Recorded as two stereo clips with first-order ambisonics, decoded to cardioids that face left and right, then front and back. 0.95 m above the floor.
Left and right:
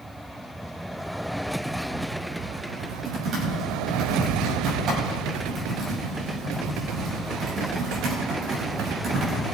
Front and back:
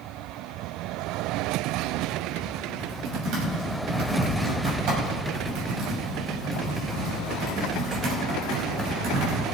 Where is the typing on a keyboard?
145° right, 5.5 m.